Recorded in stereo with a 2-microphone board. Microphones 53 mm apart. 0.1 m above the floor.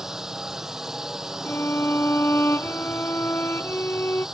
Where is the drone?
10° right (ahead or behind).